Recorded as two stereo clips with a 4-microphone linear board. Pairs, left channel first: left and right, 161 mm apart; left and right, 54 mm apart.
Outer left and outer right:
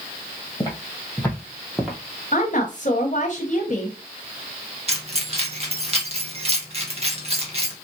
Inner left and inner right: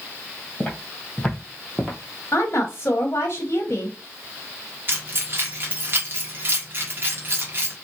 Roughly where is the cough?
No cough in this recording.